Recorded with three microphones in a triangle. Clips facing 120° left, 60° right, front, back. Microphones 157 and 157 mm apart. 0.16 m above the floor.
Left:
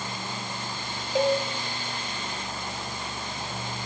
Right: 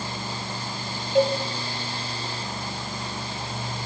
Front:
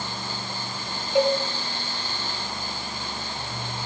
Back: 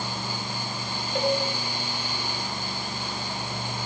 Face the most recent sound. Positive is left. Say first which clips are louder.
# right 3 dB, front 5 dB
turn(degrees=55)